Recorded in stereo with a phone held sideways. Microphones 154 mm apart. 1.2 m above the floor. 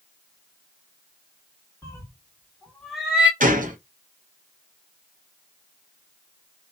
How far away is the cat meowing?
About 1.5 m.